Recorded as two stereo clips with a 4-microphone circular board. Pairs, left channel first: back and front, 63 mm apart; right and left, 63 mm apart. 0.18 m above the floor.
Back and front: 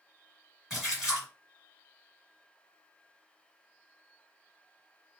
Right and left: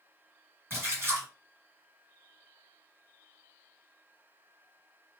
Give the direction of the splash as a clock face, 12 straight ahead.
9 o'clock.